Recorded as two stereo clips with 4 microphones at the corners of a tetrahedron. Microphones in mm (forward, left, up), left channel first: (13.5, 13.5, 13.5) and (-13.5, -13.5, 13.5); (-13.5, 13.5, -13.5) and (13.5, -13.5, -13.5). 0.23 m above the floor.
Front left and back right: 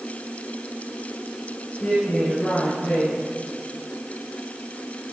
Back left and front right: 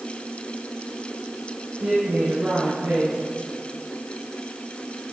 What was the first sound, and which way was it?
A woman speaking, straight ahead.